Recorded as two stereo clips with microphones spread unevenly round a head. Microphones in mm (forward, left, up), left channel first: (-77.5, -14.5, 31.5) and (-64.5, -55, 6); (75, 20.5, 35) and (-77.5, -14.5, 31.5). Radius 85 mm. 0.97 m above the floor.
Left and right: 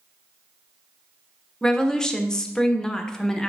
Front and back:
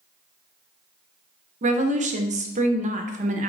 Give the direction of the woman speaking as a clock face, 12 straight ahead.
5 o'clock.